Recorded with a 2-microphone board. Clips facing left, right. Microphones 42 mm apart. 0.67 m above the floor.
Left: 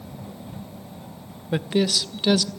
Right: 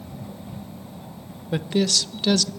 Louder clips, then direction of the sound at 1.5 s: Even; 10° left (ahead or behind).